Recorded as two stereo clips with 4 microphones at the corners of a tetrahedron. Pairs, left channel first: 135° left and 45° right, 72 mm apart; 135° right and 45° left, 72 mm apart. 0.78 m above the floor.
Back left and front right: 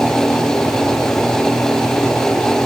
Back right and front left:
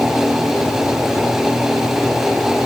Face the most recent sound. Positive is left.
No sound to turn to.